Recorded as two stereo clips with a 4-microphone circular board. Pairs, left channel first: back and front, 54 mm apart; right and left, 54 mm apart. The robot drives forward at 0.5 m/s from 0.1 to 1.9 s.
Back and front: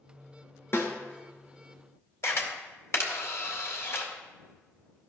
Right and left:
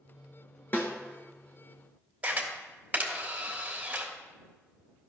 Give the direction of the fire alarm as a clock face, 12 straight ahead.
No fire alarm in this recording.